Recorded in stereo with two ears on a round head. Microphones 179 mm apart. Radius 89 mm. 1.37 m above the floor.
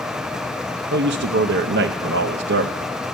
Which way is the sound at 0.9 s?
60° right (ahead or behind).